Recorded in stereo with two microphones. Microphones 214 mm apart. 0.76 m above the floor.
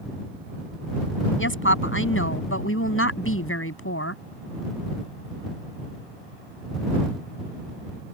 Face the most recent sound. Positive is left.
turn(degrees=85)